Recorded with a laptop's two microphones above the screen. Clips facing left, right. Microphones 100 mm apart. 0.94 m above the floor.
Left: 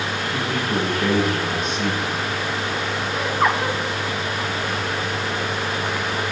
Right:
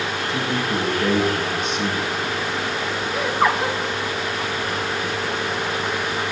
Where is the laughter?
5° right (ahead or behind), 2 m.